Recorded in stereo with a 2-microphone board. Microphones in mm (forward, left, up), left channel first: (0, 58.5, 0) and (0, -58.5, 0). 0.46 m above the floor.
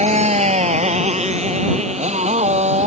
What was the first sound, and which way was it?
A motorcycle, 75° right (ahead or behind).